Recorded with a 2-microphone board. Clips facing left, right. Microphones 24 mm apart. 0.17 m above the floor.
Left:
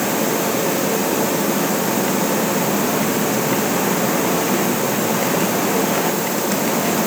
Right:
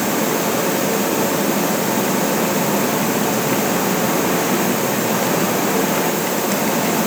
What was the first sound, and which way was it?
Only background noise.